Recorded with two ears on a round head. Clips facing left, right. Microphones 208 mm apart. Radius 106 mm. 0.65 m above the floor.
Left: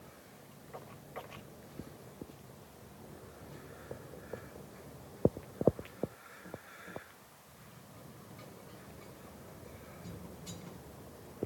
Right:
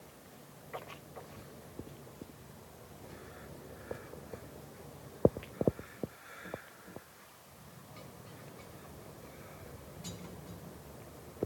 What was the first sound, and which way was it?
Only background noise.